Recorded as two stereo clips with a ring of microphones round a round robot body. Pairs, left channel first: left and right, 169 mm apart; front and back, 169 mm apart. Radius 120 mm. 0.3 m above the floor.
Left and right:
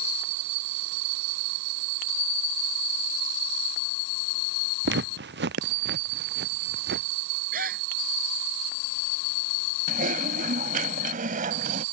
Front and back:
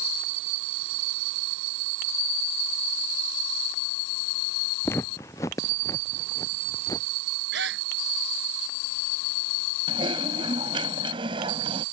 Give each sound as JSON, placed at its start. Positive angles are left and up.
{"t": 4.8, "sound": "footsteps", "azimuth_deg": -80}
{"t": 7.5, "sound": "a gasp", "azimuth_deg": -145}
{"t": 9.9, "sound": "typing on a keyboard", "azimuth_deg": -120}